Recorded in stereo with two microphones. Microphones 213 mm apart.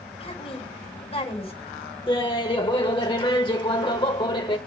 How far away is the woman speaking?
About 3 m.